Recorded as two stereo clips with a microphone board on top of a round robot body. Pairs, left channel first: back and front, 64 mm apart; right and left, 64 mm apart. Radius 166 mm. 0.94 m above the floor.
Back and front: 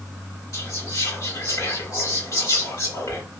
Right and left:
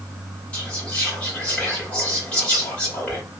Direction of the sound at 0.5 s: 160° right.